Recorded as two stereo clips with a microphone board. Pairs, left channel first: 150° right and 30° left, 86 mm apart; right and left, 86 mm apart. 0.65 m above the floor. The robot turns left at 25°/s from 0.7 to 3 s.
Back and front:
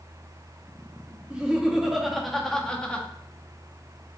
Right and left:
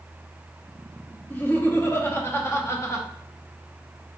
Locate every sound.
1.3 s laughter: 40° right, 0.8 m; by 3.1 s 85° right, 0.8 m